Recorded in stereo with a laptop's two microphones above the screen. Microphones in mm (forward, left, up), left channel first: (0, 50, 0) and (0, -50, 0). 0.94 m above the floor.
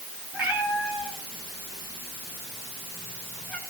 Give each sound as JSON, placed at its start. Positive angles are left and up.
{"t": 0.3, "sound": "a cat meowing", "side_deg": -15, "distance_m": 7.0}